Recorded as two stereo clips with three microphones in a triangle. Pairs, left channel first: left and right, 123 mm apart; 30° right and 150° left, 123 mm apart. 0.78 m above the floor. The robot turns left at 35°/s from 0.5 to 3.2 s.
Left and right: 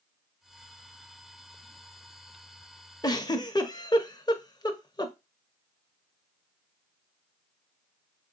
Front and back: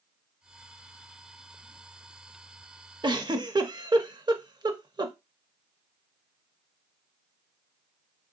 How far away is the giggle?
About 0.6 m.